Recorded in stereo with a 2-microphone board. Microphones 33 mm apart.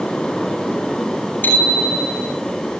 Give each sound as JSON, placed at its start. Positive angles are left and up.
{"t": 1.4, "sound": "a bicycle bell", "side_deg": 70, "distance_m": 7.0}